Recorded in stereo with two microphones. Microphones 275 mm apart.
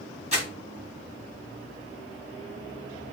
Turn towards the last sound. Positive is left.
turn(degrees=-25)  # may be behind; listen again after turning